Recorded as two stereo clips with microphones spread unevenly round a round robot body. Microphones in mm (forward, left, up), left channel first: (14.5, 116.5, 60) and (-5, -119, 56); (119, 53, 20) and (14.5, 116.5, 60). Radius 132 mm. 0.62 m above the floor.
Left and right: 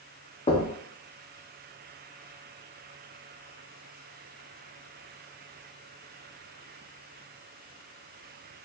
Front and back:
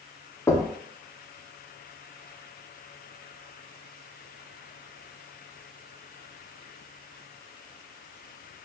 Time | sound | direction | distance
0.5 | knocking | 20° left | 0.6 m